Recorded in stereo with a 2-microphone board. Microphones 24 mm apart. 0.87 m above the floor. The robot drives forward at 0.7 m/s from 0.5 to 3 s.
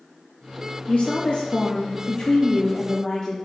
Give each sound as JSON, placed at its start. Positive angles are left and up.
{"t": 0.9, "sound": "a woman speaking", "side_deg": 65, "distance_m": 0.9}